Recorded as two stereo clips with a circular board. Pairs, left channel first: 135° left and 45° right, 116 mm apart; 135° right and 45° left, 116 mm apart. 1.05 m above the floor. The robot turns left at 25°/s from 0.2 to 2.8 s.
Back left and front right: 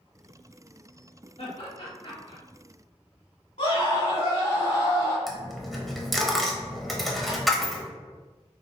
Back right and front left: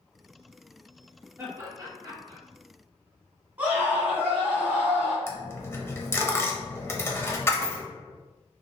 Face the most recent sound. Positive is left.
turn(degrees=-135)